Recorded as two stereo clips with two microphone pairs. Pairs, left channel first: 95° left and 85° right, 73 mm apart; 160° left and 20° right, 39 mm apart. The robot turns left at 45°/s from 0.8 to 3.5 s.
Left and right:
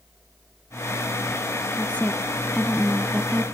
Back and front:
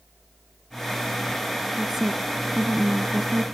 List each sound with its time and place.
1.8 s a woman speaking: 50° left, 1.1 m; by 3.5 s 25° right, 1.1 m